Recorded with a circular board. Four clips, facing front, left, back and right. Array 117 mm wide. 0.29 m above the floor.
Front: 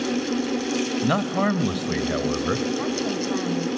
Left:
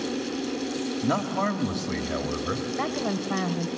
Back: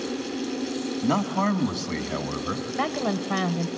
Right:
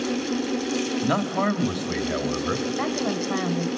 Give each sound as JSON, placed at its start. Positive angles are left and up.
{"t": 1.0, "sound": "a man speaking", "azimuth_deg": -20, "distance_m": 1.1}
{"t": 2.8, "sound": "a woman speaking", "azimuth_deg": -170, "distance_m": 0.9}